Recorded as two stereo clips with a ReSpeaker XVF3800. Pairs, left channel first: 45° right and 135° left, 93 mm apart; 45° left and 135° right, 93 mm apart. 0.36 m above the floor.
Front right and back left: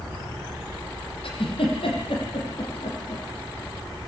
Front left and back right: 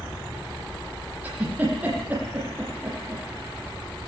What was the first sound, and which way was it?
A giggle, 65° right.